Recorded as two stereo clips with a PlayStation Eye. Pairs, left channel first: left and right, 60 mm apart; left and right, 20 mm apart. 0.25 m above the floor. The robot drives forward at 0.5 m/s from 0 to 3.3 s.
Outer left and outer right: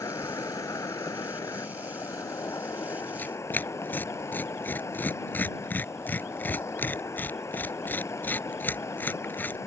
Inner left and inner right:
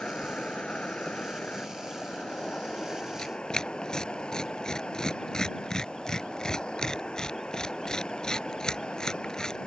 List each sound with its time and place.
0.0 s an insect: 75° left (ahead or behind); by 9.7 s 55° left (ahead or behind)
3.2 s tearing paper: 30° left (ahead or behind); by 9.6 s 35° left (ahead or behind)